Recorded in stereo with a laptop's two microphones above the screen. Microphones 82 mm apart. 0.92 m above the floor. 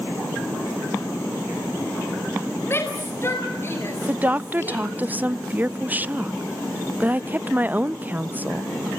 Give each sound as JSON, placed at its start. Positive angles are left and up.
{"t": 2.7, "sound": "a shout", "side_deg": 30, "distance_m": 4.5}
{"t": 4.1, "sound": "a woman speaking", "side_deg": -20, "distance_m": 0.5}